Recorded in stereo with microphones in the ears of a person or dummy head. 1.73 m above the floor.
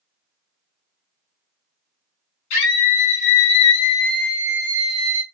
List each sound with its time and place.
2.5 s a scream: 70° left (ahead or behind), 1.0 m; by 5.2 s 40° right (ahead or behind), 0.7 m